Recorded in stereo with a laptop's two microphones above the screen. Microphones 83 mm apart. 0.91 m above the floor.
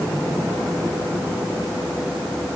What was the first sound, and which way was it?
Only background noise.